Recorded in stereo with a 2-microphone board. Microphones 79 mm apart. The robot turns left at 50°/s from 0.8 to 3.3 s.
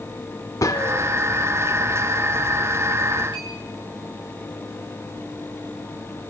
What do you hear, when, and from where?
0.6 s a gunshot: 45° left (ahead or behind), 1.5 m; by 1.1 s 55° left (ahead or behind), 1.5 m
3.3 s a clink: 85° left, 6.5 m